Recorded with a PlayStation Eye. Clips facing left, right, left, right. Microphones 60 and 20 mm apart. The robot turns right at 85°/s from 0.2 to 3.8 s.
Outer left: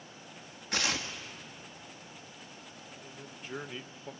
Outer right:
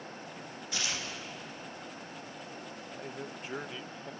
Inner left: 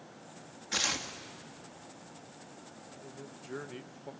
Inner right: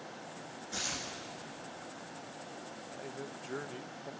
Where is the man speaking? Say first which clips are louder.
Outer right 8 dB, inner right 5 dB; 65° right, 0.8 m; by 4.1 s 15° left, 0.8 m.